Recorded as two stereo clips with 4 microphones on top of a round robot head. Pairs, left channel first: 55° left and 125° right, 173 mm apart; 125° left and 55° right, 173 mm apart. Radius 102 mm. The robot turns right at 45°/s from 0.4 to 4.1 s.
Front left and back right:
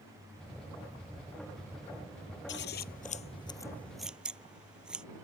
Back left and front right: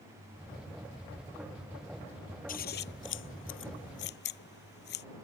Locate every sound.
2.5 s scissors: 80° left; by 5.0 s 150° left